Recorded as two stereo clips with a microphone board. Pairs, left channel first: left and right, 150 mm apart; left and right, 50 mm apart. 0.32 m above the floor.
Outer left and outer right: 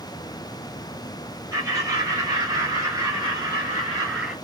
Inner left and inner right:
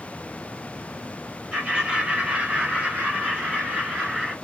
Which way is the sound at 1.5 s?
20° right (ahead or behind).